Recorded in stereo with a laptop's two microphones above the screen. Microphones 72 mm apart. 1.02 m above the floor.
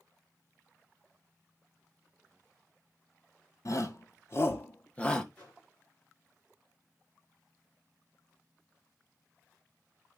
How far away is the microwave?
About 2.5 m.